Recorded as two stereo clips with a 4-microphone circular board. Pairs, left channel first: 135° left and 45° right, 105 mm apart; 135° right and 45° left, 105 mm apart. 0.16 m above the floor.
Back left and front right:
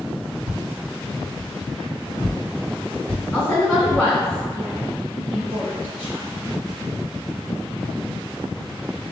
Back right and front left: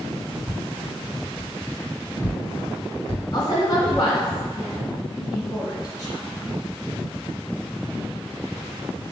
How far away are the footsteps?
About 1.2 m.